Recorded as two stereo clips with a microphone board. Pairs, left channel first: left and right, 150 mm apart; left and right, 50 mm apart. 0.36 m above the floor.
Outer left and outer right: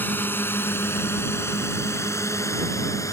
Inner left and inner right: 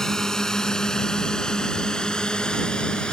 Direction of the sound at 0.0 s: 10° left (ahead or behind).